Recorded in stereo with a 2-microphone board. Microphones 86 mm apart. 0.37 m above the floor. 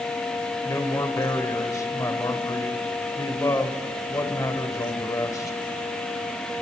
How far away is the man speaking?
About 1.7 m.